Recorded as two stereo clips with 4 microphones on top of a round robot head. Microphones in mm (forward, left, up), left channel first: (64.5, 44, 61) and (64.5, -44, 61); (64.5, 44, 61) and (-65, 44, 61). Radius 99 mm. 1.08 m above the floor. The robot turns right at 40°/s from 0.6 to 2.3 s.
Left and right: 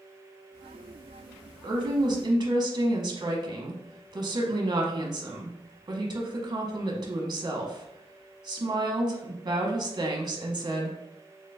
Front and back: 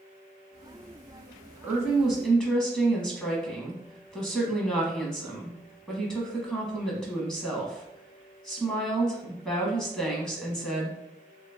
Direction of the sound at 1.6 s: 105° right.